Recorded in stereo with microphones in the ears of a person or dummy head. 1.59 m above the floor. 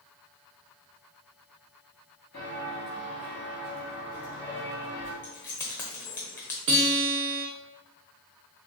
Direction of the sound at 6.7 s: 30° right (ahead or behind).